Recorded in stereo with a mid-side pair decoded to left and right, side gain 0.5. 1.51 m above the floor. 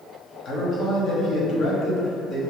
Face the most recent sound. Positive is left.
turn(degrees=55)